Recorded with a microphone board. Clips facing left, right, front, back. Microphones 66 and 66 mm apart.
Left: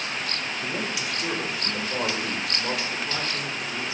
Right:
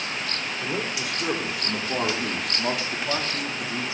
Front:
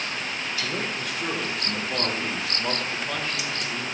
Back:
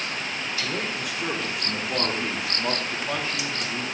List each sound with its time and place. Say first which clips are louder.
0.6 s a man speaking: right 2 dB, back 1 dB; 100° right, 4.5 m; by 3.9 s 115° right, 2.5 m